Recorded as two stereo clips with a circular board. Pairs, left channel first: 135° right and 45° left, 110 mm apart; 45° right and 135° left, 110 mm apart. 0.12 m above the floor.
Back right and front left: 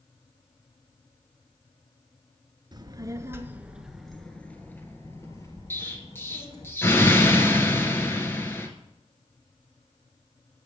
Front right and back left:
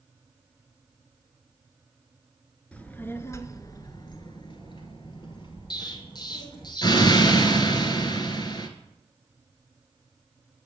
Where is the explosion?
75° right, 1.1 m.